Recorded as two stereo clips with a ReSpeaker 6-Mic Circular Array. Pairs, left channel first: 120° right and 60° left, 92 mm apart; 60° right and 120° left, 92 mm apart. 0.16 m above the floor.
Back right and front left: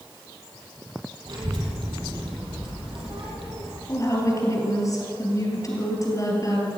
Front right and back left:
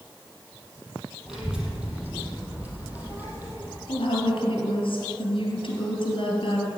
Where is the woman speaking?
70° right, 3.5 m.